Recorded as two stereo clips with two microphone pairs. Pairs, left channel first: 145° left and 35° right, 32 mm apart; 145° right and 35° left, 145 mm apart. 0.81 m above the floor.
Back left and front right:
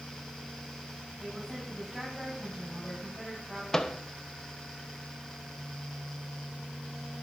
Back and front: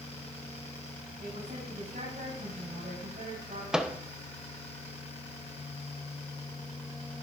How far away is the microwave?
About 0.7 m.